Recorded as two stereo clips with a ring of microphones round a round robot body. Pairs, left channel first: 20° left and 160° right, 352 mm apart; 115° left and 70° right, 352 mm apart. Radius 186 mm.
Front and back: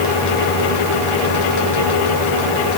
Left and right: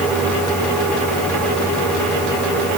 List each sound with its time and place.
Only background noise.